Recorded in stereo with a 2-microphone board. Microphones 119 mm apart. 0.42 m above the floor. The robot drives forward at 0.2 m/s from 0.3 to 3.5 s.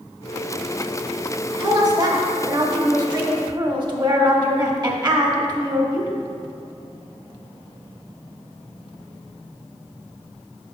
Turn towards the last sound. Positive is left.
turn(degrees=-35)  # may be behind; listen again after turning